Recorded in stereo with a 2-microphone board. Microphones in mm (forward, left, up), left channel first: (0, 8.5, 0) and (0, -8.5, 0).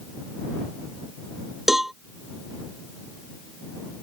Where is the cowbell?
20° right (ahead or behind).